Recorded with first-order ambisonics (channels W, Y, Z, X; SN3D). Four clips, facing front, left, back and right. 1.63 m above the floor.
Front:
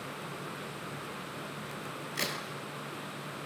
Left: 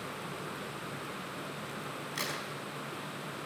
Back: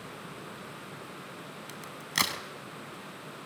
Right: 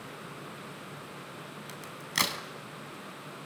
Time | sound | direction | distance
1.7 | a crack | 140° right | 4 m